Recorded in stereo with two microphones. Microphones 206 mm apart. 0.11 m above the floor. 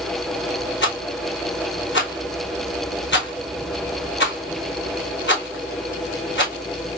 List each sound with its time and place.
0.8 s a rattle: 65° left (ahead or behind), 1.2 m